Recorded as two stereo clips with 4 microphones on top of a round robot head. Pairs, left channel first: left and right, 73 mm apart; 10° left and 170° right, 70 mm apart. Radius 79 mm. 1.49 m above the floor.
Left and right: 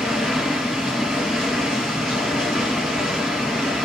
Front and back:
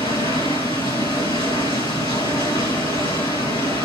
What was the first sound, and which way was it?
Running water, 10° left.